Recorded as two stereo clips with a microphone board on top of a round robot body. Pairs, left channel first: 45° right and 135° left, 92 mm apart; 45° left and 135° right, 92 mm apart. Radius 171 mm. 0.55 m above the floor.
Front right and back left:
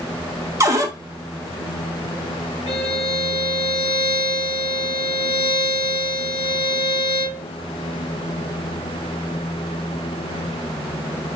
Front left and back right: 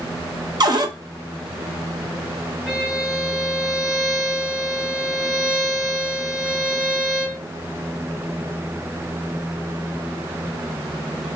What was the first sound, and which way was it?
A cupboard door, 170° right.